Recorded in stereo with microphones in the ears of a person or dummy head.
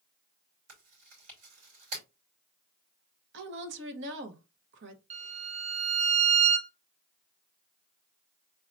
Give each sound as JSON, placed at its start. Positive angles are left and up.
{"t": 0.7, "sound": "chewing", "side_deg": -75, "distance_m": 4.0}
{"t": 3.3, "sound": "a woman speaking", "side_deg": -65, "distance_m": 1.1}
{"t": 5.1, "sound": "a violin", "side_deg": -35, "distance_m": 1.1}